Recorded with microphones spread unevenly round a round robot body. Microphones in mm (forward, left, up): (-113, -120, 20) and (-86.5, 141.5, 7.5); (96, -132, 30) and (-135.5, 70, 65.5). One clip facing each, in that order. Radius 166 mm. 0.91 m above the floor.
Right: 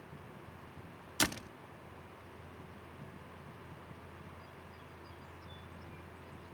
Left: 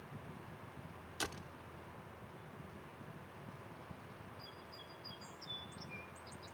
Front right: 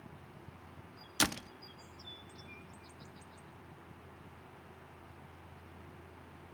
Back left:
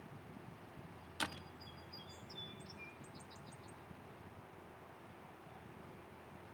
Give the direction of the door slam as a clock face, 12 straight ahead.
2 o'clock.